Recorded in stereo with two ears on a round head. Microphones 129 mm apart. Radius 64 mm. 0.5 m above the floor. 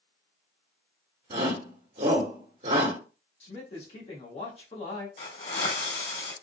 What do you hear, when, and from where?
1.3 s a shout: 50° right (ahead or behind), 1.1 m
3.4 s a man speaking: 45° left (ahead or behind), 1.4 m
5.2 s a hiss: 60° left (ahead or behind), 2.5 m